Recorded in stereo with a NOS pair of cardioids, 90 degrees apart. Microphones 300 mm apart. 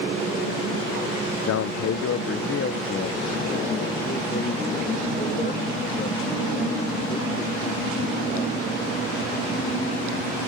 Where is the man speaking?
60° left; by 8.8 s 25° left.